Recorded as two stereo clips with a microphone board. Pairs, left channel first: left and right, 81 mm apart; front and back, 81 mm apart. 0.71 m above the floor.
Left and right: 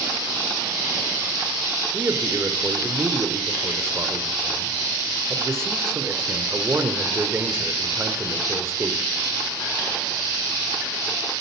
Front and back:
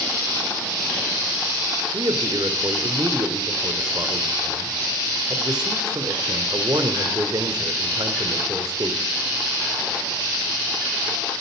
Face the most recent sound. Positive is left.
turn(degrees=-150)